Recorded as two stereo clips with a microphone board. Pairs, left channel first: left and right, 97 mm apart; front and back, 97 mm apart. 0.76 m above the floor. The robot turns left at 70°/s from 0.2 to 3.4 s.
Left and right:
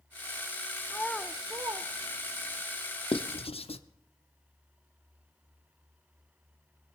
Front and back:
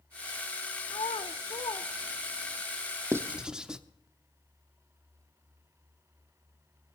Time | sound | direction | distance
0.9 | a child speaking | 20° left | 0.5 m
3.1 | writing | 115° left | 0.7 m